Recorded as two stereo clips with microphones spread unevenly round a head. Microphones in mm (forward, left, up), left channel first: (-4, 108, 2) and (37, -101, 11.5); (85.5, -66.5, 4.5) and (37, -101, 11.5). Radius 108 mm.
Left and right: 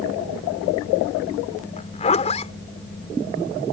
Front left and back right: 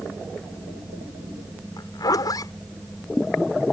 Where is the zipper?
40° left.